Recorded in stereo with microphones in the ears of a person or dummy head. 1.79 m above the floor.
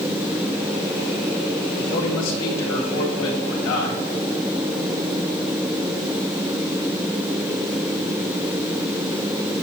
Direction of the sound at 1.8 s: 75° left (ahead or behind).